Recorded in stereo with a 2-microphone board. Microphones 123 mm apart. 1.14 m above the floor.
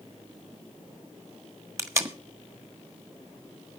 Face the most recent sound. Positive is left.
turn(degrees=-20)  # may be behind; listen again after turning